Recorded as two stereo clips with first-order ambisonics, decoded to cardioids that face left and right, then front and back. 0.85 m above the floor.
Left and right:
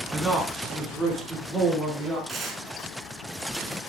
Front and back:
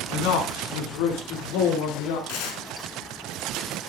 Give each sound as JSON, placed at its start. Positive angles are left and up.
{"t": 0.1, "sound": "a man speaking", "azimuth_deg": 5, "distance_m": 8.5}
{"t": 2.3, "sound": "tearing paper", "azimuth_deg": -15, "distance_m": 5.0}